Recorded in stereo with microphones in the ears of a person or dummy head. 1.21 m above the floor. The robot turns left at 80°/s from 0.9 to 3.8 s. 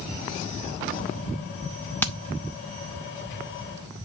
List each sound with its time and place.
2.0 s hammering: 10° left (ahead or behind), 0.7 m; by 2.1 s 20° left (ahead or behind), 0.7 m